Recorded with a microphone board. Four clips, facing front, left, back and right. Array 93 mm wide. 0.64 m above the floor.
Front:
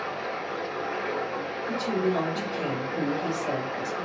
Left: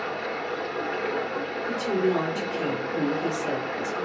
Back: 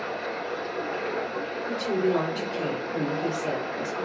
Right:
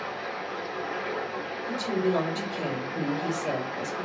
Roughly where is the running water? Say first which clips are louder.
Left 3 dB, even; left.